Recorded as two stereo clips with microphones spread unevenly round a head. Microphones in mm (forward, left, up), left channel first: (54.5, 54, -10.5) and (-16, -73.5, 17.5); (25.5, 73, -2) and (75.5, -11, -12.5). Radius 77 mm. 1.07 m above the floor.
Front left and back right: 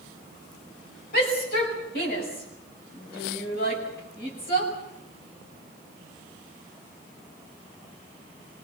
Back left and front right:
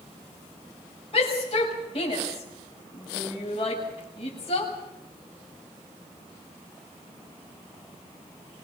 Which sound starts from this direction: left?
A shout, at 1.1 s.